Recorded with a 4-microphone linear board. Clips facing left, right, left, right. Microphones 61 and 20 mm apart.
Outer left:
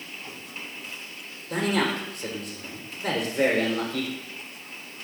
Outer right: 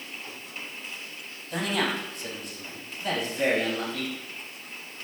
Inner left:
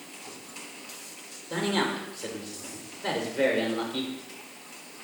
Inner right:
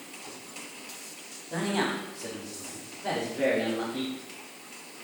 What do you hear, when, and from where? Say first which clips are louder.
1.5 s a man speaking: outer left 3 dB, inner left 1 dB; 65° left (ahead or behind), 4 m; by 4.1 s 80° left, 3.5 m